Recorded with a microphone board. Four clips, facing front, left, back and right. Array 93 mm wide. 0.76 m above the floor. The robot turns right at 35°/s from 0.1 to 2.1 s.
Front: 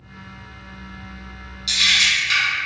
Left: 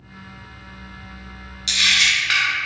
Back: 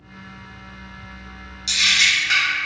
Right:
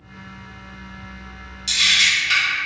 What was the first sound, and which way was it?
A camera shutter, 100° left.